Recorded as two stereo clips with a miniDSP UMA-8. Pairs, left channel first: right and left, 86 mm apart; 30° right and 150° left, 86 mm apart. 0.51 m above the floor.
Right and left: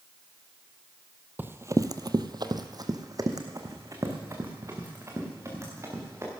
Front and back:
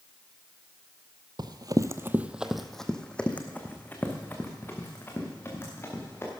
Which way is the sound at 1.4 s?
155° left.